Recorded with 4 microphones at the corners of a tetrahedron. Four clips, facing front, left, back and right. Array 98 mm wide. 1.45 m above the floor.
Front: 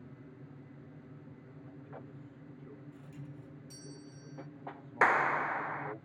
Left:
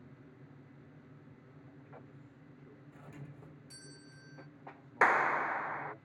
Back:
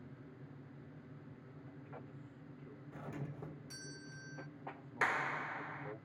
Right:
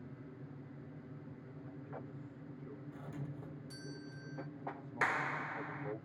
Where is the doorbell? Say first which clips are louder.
Right 3 dB, back 3 dB; 165° right.